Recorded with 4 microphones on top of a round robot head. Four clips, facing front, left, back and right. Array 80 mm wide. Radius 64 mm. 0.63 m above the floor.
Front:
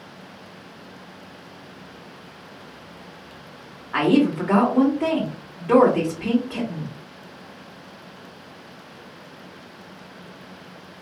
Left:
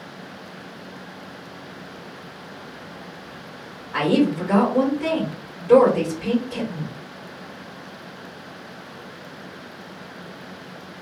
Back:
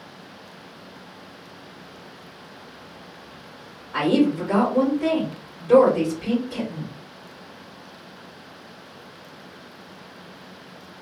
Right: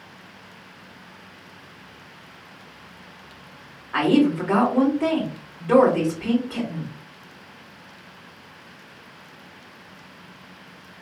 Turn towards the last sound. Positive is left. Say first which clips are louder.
# right 1 dB, front 1 dB
turn(degrees=-30)